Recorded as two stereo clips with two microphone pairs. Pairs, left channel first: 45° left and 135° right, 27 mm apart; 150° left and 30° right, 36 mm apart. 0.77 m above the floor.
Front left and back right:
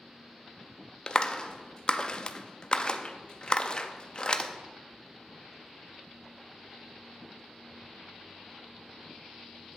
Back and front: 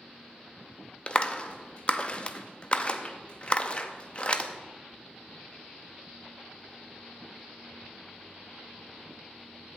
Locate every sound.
1.1 s a clap: 95° left, 0.5 m